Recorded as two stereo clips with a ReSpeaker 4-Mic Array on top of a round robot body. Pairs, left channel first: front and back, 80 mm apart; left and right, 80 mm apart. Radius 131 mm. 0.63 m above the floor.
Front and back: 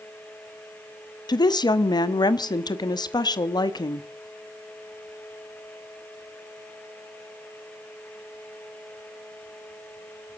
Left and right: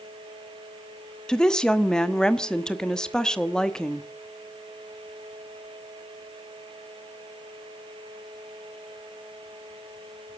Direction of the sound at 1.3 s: 10° left.